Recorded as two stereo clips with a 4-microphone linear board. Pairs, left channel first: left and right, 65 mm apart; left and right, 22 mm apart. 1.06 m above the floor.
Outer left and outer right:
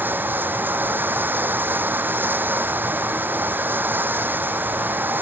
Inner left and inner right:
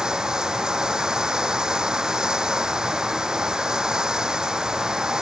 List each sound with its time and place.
0.0 s running water: 30° right (ahead or behind)